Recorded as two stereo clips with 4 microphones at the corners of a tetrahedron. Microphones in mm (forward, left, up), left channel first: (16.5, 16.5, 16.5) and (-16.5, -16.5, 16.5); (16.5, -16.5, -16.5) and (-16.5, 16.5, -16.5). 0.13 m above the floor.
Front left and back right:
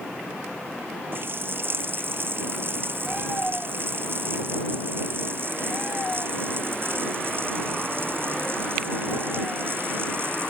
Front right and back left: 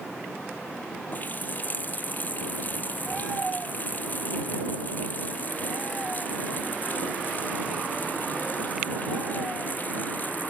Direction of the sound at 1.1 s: 95° right.